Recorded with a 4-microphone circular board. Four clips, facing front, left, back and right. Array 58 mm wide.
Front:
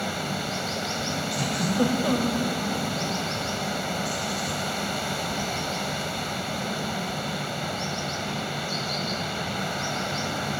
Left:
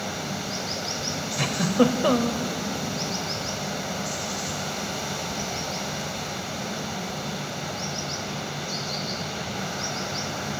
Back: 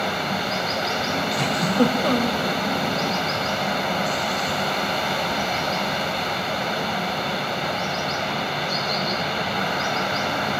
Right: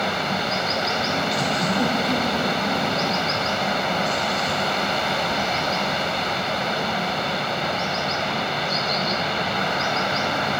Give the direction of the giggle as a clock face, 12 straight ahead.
8 o'clock.